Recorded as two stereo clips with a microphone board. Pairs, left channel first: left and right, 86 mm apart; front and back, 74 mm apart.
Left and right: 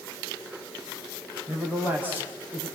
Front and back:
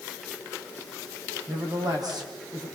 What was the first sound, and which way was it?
A man speaking, 160° right.